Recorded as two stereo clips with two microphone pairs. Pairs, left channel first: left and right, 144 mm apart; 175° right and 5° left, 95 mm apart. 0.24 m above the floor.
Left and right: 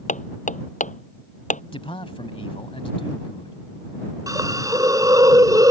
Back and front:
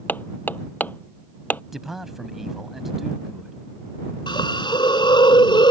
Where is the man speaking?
90° left.